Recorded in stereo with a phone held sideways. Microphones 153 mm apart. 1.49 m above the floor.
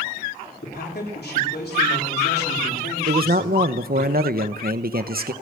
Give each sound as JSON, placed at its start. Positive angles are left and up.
{"t": 0.6, "sound": "a man speaking", "side_deg": 85, "distance_m": 4.0}
{"t": 3.1, "sound": "a man speaking", "side_deg": -65, "distance_m": 1.0}